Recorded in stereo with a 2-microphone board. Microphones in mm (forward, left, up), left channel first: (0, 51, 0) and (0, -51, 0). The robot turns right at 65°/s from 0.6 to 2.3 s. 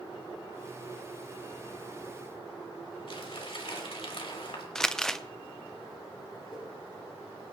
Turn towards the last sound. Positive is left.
turn(degrees=50)  # may be behind; listen again after turning